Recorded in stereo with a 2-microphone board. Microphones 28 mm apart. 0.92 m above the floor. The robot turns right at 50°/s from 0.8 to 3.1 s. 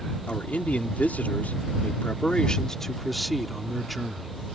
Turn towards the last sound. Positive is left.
turn(degrees=180)